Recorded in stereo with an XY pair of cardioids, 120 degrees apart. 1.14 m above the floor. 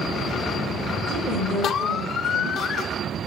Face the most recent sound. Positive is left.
turn(degrees=-60)